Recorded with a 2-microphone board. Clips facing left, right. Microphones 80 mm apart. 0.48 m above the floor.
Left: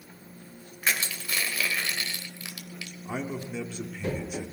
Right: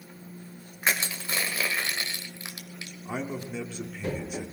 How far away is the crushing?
About 2 m.